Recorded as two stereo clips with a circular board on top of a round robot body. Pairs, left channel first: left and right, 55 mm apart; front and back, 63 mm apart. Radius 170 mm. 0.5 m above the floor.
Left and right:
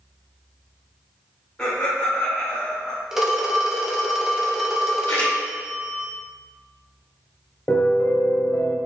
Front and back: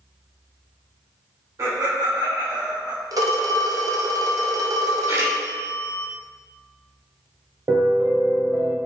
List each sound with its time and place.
1.6 s laughter: 160° left, 3 m
3.1 s a phone ringing: 175° right, 1.6 m
5.1 s a splash: 140° left, 3.5 m
7.7 s a piano: 140° left, 1.4 m